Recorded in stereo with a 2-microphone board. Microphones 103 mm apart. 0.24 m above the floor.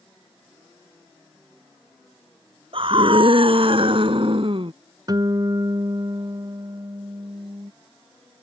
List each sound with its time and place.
2.7 s a scream: 60° right (ahead or behind)
5.1 s a guitar: 40° right (ahead or behind)